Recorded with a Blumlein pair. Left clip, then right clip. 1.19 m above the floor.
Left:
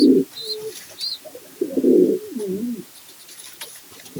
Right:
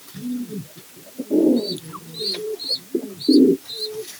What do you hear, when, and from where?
Only background noise.